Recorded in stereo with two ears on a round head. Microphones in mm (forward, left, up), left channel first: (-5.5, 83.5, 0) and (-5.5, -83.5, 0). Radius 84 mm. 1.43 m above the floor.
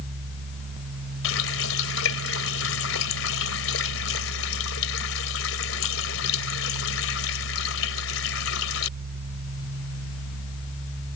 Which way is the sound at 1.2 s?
80° left.